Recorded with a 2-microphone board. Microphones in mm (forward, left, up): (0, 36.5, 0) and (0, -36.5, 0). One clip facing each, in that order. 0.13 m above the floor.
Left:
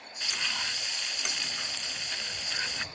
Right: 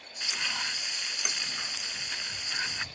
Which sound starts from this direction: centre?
Frying, at 0.2 s.